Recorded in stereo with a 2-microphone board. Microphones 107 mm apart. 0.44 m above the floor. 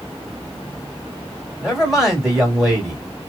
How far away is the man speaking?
About 2 m.